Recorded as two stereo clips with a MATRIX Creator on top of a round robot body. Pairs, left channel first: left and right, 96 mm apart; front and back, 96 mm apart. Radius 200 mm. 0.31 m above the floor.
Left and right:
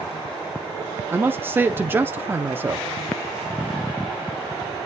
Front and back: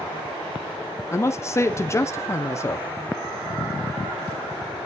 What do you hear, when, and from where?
1.1 s a man speaking: 35° right, 0.9 m